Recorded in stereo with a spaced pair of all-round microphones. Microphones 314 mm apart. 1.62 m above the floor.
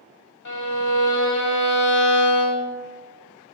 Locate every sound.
0.5 s a violin: 65° left (ahead or behind), 0.8 m